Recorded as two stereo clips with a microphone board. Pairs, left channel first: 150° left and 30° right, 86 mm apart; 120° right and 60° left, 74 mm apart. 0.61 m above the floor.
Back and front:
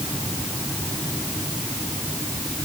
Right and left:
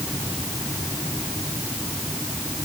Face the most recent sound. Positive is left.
No sound to turn to.